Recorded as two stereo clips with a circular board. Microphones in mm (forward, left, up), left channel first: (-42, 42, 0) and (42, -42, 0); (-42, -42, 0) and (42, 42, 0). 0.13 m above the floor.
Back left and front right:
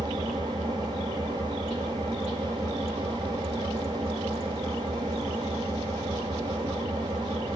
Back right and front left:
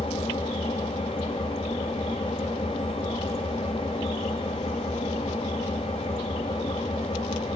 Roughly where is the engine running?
Right.